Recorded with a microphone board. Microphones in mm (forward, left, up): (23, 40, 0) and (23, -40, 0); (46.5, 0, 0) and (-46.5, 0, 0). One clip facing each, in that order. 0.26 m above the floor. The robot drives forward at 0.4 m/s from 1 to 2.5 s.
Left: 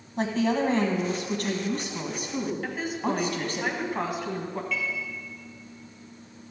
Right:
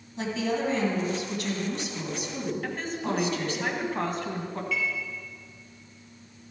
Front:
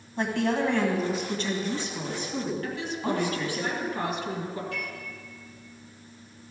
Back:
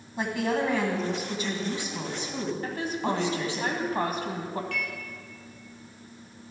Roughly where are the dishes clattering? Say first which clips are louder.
Right 3 dB, back 1 dB; behind.